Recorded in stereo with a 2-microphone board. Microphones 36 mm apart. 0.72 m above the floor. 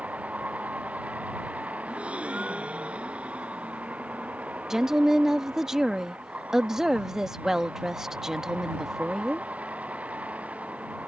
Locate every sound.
0.0 s a vehicle: 40° right (ahead or behind)
1.8 s a gasp: 35° right (ahead or behind)
4.7 s a woman speaking: 15° right (ahead or behind)